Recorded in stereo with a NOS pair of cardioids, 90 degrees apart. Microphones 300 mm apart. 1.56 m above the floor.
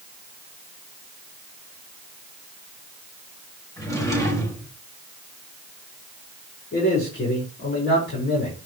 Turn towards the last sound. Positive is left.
turn(degrees=35)